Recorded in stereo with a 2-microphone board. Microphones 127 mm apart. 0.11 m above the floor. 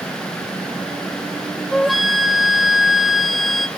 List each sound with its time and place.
1.7 s a flute: centre (ahead or behind), 0.9 m